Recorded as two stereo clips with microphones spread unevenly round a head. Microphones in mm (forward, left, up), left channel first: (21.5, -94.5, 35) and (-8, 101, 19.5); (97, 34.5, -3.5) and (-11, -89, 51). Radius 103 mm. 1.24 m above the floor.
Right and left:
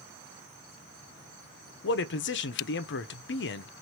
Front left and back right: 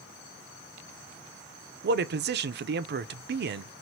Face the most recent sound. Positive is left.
turn(degrees=-105)